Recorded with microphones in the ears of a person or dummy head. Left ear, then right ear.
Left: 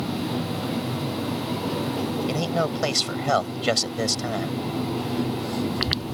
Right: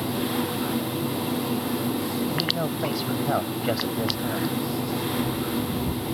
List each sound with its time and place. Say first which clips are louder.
2.3 s a man speaking: left 2 dB; 80° left